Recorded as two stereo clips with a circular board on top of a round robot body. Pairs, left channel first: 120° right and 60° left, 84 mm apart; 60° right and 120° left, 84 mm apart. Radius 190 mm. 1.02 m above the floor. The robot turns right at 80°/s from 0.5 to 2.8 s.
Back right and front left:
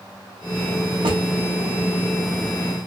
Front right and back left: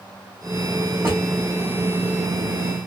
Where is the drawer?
60° left, 1.0 m; by 1.2 s 70° left, 1.0 m.